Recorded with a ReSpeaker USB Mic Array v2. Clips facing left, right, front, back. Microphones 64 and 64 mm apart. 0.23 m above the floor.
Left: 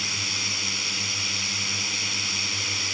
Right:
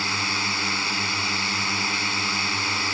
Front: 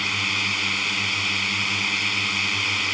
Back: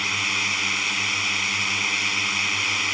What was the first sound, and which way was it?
A drone, 95° right.